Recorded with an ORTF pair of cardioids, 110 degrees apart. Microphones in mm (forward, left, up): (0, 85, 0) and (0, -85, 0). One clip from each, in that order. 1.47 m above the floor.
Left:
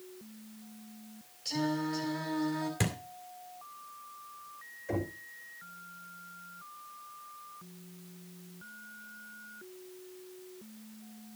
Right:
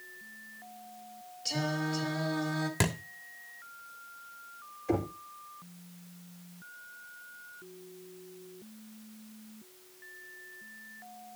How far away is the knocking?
About 4 m.